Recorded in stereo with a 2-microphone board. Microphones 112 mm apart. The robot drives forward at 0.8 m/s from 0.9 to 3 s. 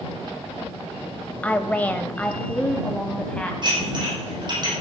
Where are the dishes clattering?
40° right (ahead or behind), 7 m.